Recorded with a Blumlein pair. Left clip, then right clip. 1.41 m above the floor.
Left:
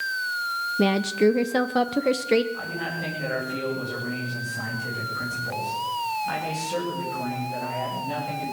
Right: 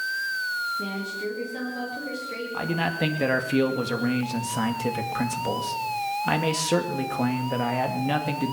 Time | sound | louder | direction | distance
0.8 | a woman speaking | left 9 dB | 35° left | 0.8 m
2.5 | a man speaking | right 3 dB | 55° right | 2.5 m